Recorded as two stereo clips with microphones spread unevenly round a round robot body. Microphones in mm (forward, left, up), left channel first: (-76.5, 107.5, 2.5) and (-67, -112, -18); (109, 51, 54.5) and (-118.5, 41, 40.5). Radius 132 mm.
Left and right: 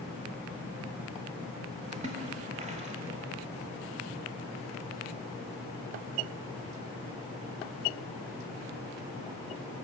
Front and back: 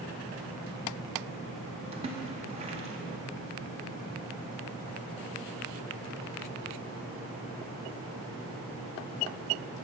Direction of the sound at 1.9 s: 125° right.